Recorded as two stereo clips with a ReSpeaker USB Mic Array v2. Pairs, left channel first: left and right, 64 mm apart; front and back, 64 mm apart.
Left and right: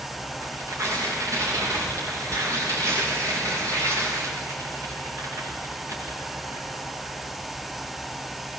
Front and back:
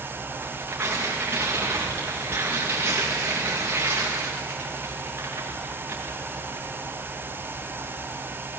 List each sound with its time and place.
0.4 s tearing paper: 125° right, 6.5 m